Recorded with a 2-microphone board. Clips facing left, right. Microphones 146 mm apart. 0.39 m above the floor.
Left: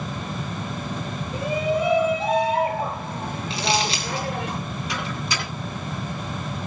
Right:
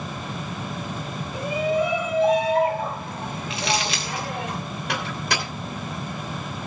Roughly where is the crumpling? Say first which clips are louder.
Left 2 dB; left.